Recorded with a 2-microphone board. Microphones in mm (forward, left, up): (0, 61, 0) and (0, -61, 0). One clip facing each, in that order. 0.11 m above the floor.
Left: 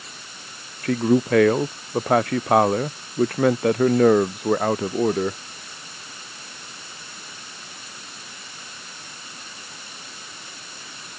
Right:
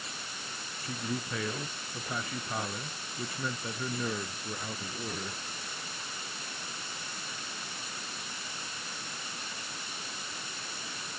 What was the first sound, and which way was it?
A man speaking, 80° left.